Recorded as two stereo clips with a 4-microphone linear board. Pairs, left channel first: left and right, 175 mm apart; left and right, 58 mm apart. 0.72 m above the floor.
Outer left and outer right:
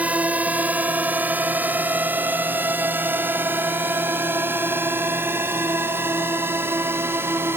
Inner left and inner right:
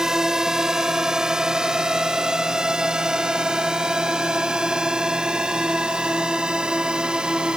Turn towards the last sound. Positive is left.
turn(degrees=-15)  # may be behind; listen again after turning